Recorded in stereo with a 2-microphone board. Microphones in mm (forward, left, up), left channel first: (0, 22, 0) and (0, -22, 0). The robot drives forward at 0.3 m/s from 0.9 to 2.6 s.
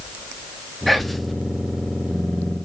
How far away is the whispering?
About 0.7 m.